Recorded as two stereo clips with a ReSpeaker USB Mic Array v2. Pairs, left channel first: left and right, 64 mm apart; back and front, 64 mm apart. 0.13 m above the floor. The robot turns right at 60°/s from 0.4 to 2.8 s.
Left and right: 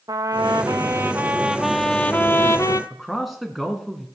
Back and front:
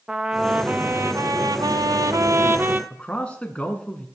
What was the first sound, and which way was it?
A trumpet, 80° right.